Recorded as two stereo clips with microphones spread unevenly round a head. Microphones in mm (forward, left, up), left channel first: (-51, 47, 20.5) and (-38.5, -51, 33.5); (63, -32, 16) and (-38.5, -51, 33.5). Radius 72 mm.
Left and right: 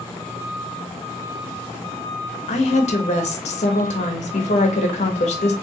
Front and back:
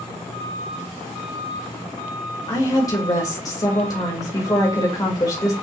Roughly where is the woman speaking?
Left.